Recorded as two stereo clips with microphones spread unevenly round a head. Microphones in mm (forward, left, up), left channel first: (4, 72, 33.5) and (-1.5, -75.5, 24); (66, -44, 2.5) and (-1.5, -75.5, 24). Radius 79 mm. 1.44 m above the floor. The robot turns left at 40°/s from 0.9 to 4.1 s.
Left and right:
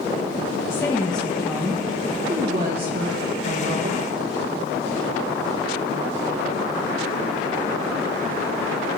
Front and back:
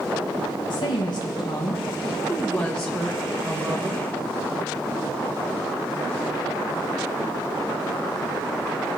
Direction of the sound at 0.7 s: 15° left.